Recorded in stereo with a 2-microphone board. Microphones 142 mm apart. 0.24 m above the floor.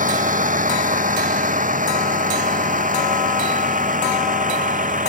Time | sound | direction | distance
0.0 | a vehicle | 85° right | ?